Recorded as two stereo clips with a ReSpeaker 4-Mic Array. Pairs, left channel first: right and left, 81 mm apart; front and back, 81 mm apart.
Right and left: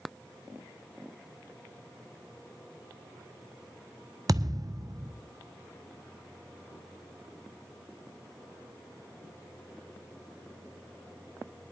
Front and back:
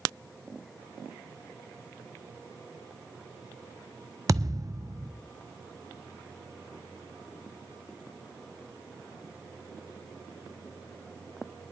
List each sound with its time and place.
4.3 s a thud: 135° left, 0.8 m